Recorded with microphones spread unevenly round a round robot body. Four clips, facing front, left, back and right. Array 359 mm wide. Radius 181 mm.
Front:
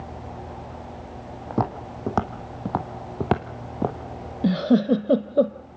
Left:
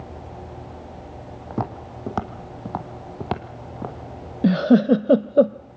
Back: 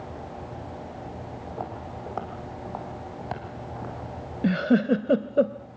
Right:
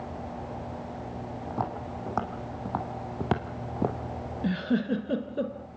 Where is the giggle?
75° left, 0.8 m.